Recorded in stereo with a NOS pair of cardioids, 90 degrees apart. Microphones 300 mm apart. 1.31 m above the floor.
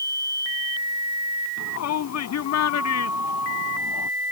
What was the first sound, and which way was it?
A shout, 60° left.